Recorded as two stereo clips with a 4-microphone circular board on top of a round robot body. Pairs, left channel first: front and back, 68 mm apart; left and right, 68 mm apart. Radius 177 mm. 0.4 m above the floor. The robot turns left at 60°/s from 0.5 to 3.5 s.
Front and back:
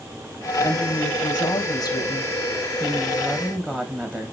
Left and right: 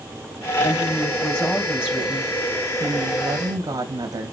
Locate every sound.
0.6 s a woman speaking: 60° left, 3.5 m; by 4.3 s 110° right, 3.5 m